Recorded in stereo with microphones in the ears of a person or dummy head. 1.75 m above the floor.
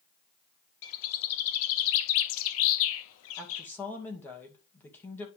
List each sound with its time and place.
0.8 s a bird: 75° left (ahead or behind), 0.8 m
3.4 s a woman speaking: 10° left (ahead or behind), 2 m